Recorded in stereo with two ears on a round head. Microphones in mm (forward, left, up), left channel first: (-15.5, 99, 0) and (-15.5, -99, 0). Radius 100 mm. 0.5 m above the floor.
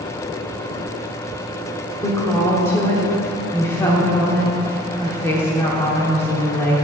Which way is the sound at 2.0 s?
15° left (ahead or behind).